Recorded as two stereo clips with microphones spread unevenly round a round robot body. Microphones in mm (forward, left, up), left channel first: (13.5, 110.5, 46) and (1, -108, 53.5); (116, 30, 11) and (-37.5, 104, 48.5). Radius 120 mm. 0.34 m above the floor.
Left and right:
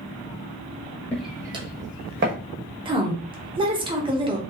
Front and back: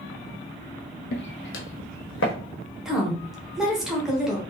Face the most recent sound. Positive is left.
turn(degrees=-85)